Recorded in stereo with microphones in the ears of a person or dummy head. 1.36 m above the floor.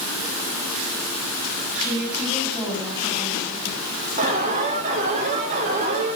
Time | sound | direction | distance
1.8 | a woman speaking | 10° right (ahead or behind) | 8.5 m
4.2 | an alarm | 40° right (ahead or behind) | 5 m